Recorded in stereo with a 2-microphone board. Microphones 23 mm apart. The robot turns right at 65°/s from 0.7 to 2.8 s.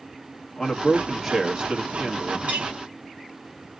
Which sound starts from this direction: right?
A clink, at 2.5 s.